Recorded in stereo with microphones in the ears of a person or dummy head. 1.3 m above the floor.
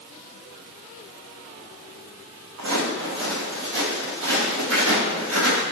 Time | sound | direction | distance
2.6 | footsteps | 75° right (ahead or behind) | 6 m